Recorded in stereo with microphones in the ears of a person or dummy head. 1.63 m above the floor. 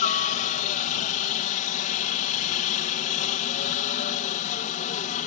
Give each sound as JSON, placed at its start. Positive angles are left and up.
{"t": 0.0, "sound": "a helicopter", "side_deg": 35}